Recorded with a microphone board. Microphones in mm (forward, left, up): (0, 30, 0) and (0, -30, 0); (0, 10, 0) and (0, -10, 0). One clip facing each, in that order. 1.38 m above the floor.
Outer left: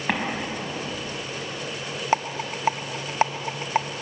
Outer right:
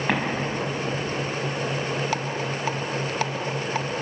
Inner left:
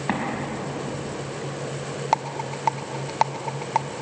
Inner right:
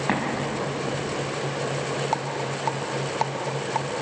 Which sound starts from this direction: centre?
An explosion, at 0.1 s.